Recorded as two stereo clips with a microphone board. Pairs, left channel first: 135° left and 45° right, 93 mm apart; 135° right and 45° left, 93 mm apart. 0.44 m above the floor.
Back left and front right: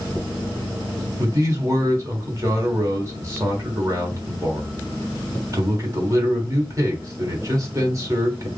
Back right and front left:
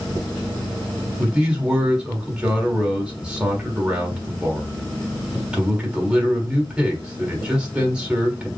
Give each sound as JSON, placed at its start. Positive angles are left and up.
{"t": 1.2, "sound": "a man speaking", "azimuth_deg": -25, "distance_m": 1.4}